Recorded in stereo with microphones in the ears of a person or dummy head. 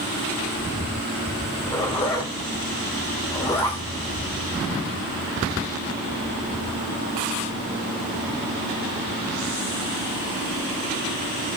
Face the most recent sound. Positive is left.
turn(degrees=15)  # may be behind; listen again after turning